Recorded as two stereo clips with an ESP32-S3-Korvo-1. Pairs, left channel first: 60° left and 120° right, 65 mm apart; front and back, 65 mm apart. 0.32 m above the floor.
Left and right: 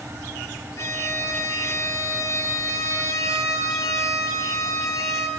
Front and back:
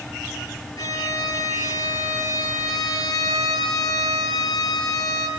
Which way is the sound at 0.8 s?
20° left.